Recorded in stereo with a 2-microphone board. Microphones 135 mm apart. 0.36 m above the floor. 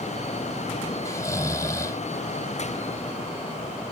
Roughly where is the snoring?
Left.